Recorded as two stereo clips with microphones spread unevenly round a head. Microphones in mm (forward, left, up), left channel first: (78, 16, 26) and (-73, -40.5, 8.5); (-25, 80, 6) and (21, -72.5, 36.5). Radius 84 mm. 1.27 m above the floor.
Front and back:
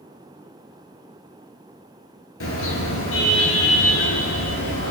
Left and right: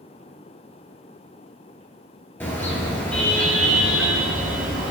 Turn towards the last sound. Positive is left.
turn(degrees=15)